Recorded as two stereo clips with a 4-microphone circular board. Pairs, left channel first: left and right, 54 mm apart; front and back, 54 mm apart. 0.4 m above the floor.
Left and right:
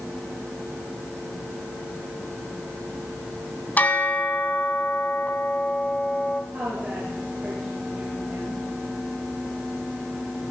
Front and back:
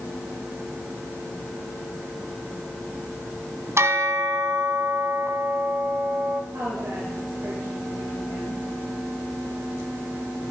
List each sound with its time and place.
3.8 s a bell: 150° left, 1.7 m
6.5 s a woman speaking: 155° right, 7 m